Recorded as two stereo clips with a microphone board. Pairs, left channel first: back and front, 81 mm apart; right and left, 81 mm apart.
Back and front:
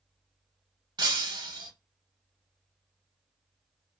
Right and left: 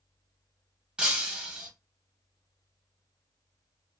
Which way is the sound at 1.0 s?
15° left.